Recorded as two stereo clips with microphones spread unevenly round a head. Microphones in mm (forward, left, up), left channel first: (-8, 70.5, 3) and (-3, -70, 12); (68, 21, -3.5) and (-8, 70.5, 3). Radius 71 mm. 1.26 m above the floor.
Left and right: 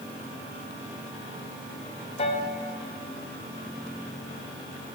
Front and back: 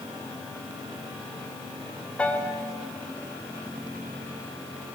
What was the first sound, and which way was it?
A piano, 45° left.